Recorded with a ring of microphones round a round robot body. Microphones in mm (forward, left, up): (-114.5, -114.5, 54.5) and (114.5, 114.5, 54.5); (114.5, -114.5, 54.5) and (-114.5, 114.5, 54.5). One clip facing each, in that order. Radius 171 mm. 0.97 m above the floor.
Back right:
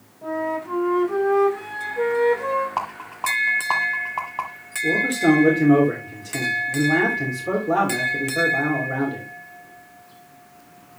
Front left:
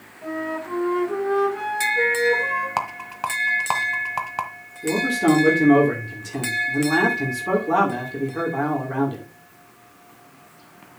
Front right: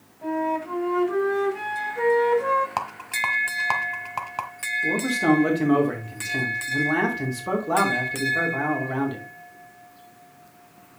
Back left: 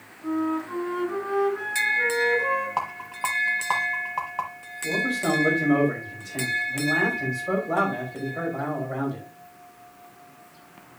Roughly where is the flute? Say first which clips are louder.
Back right 1 dB, back left 2 dB; ahead right.